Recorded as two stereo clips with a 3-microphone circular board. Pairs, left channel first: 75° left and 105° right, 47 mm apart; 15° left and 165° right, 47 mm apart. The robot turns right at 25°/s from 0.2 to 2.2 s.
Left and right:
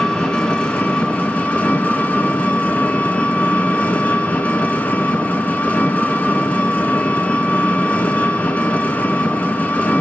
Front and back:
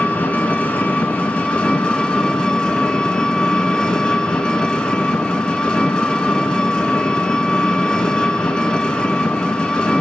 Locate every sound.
0.0 s an engine running: 15° left, 1.0 m; by 10.0 s 65° left, 1.0 m